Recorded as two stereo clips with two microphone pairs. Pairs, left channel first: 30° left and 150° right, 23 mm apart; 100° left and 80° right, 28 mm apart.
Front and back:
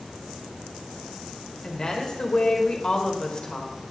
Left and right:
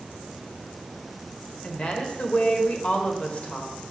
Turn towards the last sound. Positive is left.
turn(degrees=75)